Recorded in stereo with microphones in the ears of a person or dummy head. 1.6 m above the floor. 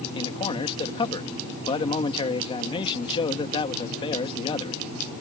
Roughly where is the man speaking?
Left.